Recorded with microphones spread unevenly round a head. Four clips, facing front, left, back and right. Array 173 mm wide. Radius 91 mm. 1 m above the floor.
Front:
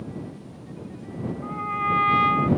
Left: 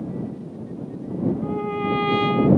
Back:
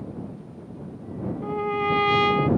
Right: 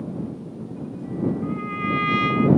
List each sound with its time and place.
1.4 s a trumpet: 140° left